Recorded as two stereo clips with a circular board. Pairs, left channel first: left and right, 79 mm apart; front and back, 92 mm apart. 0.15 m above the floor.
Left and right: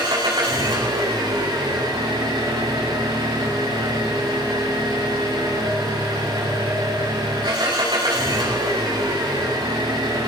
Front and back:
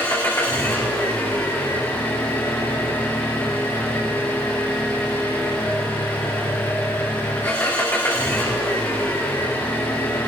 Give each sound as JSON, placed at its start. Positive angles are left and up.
{"t": 0.0, "sound": "an engine running", "azimuth_deg": -65, "distance_m": 8.0}